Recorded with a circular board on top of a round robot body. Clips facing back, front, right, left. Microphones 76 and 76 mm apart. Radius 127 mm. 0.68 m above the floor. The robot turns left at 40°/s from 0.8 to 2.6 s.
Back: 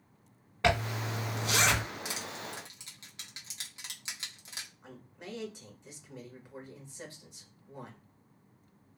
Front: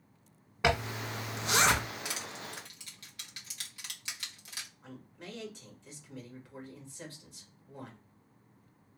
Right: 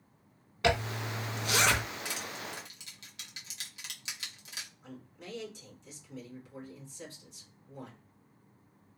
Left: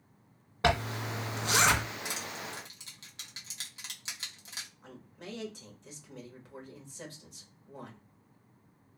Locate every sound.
0.6 s a zipper: 75° left, 1.1 m; by 1.8 s 35° left, 1.1 m
2.0 s crushing: 150° left, 1.5 m; by 4.7 s 125° left, 1.5 m
4.8 s a man speaking: 110° left, 1.4 m